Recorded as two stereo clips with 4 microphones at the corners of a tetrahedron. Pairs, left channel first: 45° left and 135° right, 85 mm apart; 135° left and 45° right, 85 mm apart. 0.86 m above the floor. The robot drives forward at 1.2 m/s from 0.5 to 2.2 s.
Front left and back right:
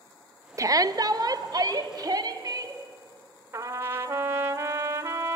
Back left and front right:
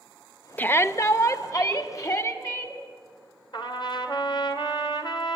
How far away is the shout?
About 0.6 m.